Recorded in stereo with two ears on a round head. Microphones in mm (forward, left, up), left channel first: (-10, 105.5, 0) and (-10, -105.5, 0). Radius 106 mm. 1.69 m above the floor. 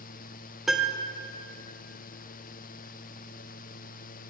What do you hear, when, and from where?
0.7 s a piano: centre (ahead or behind), 0.9 m